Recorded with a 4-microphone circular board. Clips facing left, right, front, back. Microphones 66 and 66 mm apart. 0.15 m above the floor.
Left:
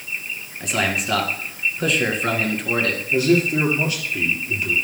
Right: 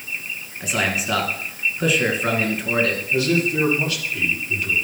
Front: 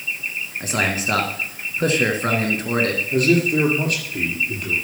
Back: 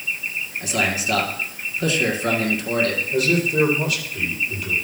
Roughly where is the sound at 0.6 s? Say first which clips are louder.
Even, front 1 dB; ahead.